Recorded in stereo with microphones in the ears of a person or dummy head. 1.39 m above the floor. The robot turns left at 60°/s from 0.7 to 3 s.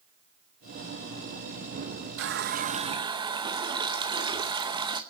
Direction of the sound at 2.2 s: 105° right.